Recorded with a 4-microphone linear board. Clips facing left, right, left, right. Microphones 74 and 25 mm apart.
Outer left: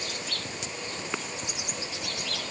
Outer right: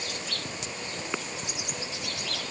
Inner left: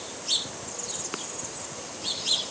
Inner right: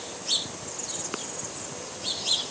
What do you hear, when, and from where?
Only background noise.